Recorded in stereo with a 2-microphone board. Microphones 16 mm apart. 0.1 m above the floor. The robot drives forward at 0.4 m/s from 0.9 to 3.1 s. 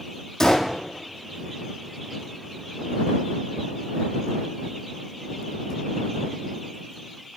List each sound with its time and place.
0.4 s a gunshot: 40° left (ahead or behind), 1.4 m